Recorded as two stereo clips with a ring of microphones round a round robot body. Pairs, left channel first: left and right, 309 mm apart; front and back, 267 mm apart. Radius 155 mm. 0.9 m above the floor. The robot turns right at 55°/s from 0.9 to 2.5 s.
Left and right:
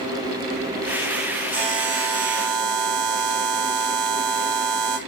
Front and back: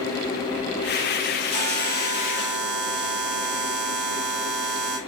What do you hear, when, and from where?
1.5 s a buzzer: 170° right, 5 m; by 5.0 s 115° right, 5 m